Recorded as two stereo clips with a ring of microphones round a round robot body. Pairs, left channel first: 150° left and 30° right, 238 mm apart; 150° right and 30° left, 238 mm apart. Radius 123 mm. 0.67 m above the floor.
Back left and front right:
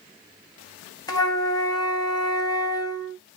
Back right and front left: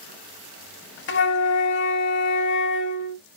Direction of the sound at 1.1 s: 140° right.